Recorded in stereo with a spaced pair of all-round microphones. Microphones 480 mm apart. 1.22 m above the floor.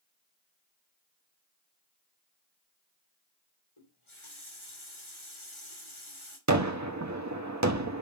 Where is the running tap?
80° left, 3 m.